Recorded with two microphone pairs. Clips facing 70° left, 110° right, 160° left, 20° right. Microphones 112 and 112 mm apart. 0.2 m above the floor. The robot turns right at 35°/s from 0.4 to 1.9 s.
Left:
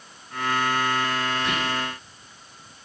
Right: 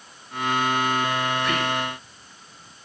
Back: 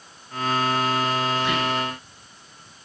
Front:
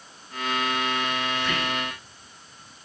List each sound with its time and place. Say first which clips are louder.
1.4 s whispering: right 2 dB, back 4 dB; 105° left, 1.1 m; by 1.9 s 125° left, 1.1 m